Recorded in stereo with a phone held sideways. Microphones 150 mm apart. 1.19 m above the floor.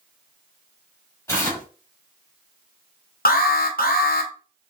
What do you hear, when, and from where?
1.3 s tearing paper: 20° left (ahead or behind), 1.5 m
3.2 s an alarm: 80° left, 0.7 m